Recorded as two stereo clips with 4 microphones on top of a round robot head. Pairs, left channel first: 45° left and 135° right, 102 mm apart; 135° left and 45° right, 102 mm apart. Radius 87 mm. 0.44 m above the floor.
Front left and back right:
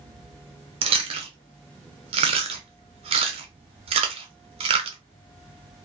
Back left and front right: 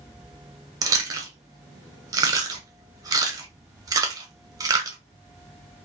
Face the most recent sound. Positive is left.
turn(degrees=-105)